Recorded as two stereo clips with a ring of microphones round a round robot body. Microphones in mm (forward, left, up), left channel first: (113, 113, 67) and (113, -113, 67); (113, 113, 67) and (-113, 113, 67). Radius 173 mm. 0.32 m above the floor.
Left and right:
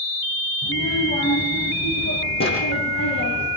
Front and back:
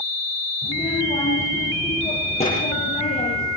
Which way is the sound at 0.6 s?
60° left.